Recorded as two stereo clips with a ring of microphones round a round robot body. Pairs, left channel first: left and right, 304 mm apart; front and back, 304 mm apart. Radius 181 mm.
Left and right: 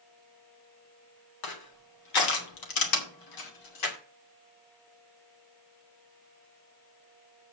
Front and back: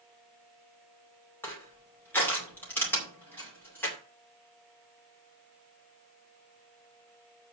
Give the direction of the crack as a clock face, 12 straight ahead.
No crack in this recording.